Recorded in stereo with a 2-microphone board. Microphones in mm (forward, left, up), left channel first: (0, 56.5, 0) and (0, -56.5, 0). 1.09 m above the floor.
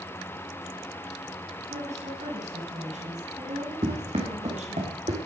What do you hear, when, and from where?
1.7 s a woman speaking: 85° right, 10 m
3.8 s running footsteps: 65° right (ahead or behind), 5 m; by 5.2 s 70° right (ahead or behind), 5 m